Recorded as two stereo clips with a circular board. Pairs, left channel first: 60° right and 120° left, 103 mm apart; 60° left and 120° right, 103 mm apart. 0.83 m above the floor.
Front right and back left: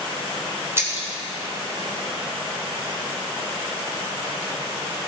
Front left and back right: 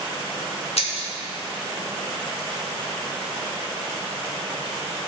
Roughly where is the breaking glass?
Ahead left.